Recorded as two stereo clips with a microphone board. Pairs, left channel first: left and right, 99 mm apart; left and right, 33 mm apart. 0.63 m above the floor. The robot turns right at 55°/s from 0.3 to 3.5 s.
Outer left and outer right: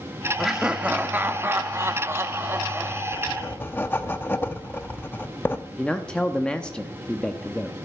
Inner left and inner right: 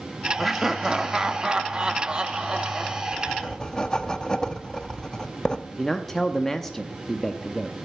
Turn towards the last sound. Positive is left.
turn(degrees=10)  # may be behind; listen again after turning